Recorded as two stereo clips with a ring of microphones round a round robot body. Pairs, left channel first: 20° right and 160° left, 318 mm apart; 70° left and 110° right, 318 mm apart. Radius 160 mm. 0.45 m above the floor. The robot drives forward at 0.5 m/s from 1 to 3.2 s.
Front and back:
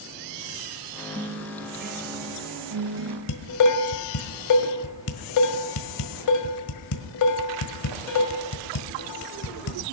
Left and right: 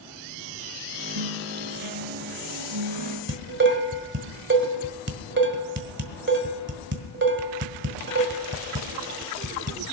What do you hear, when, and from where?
1.1 s a guitar: 130° right, 1.5 m; by 3.2 s 150° right, 2.5 m
3.3 s dishes clattering: 55° right, 1.6 m